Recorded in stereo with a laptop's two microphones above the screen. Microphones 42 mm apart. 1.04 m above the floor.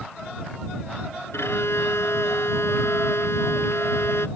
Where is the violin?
75° left (ahead or behind).